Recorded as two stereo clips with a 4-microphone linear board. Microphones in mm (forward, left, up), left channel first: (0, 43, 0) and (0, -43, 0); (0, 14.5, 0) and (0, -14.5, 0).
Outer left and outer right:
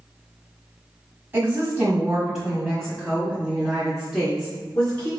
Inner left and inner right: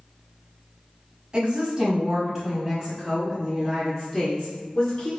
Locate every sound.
1.3 s a woman speaking: 25° right (ahead or behind), 1.6 m; by 5.1 s 25° left (ahead or behind), 3 m